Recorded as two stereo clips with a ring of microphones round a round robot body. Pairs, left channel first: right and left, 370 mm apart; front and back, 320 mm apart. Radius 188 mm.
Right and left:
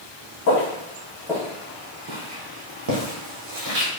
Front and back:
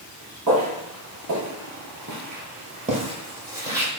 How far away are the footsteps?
About 1.1 m.